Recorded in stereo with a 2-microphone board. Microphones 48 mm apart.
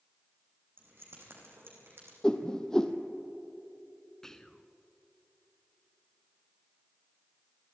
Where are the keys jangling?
50° right (ahead or behind), 5 m.